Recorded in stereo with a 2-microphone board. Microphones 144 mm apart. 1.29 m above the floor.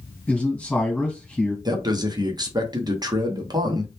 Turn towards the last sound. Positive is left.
turn(degrees=-30)  # may be behind; listen again after turning